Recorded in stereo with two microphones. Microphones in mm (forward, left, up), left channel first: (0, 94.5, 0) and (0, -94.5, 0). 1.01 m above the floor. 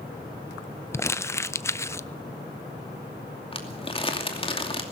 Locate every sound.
0.9 s crumpling: 15° left (ahead or behind), 0.6 m
3.5 s crumpling: 30° left (ahead or behind), 2.5 m